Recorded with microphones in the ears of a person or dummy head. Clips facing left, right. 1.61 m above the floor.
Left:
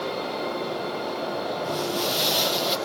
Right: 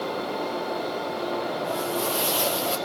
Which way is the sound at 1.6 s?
35° left (ahead or behind).